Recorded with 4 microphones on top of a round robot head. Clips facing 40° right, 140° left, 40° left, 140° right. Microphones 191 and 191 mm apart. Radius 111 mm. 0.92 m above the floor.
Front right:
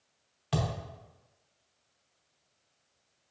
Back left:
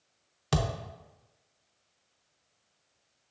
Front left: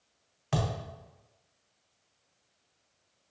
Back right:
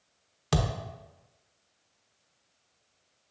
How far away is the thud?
About 0.6 m.